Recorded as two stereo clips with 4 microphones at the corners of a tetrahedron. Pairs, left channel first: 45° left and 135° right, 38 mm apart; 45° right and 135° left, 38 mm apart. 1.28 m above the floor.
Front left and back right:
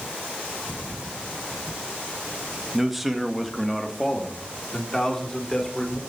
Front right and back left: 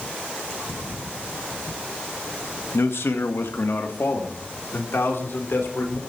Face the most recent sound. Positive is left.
turn(degrees=-30)